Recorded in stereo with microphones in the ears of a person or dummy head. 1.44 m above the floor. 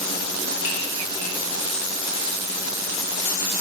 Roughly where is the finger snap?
Left.